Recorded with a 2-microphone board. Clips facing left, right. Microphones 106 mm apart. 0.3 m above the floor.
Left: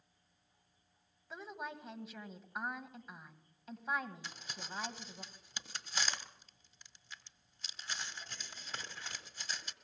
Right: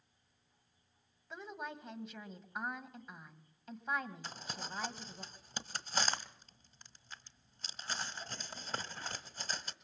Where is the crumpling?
45° right (ahead or behind), 1.3 m.